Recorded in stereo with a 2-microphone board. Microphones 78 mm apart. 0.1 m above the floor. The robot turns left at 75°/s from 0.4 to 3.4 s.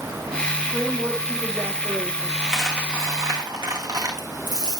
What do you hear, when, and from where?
0.7 s a woman speaking: 45° left, 7.5 m; by 2.3 s 80° right, 7.5 m
2.4 s a dropped coin: 15° left (ahead or behind), 3.5 m; by 4.8 s 60° right (ahead or behind), 3.5 m